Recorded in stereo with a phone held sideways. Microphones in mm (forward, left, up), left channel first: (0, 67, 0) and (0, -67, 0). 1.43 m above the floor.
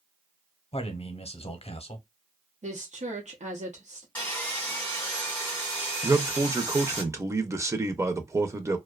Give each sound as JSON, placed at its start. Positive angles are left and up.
{"t": 0.7, "sound": "a man speaking", "side_deg": 45, "distance_m": 0.8}
{"t": 2.6, "sound": "a woman speaking", "side_deg": -60, "distance_m": 0.9}
{"t": 4.2, "sound": "sawing", "side_deg": 15, "distance_m": 1.9}
{"t": 6.0, "sound": "a man speaking", "side_deg": -20, "distance_m": 0.5}